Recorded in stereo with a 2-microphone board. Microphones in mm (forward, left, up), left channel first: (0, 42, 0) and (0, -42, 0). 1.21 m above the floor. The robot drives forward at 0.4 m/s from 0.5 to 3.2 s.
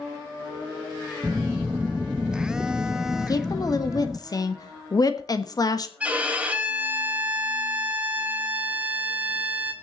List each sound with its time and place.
1.2 s a phone buzzing: 5° right (ahead or behind), 0.5 m
3.2 s a woman speaking: 45° left (ahead or behind), 1.3 m
6.0 s a violin: 15° right (ahead or behind), 1.7 m